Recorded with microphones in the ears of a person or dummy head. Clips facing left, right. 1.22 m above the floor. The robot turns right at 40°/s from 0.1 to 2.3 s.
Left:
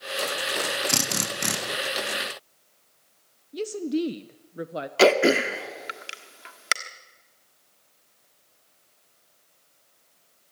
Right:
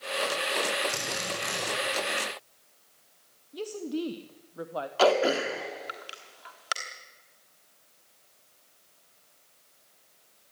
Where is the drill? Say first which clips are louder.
Left 4 dB; 70° left (ahead or behind), 1.8 m; by 1.6 s 40° left (ahead or behind), 1.8 m.